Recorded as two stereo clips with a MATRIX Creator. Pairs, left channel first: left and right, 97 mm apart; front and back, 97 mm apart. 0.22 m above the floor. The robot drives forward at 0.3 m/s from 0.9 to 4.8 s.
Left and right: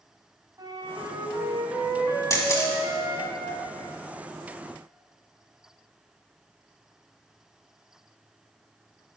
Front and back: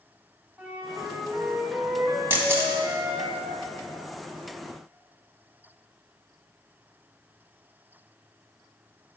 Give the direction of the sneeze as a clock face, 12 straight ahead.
No sneeze in this recording.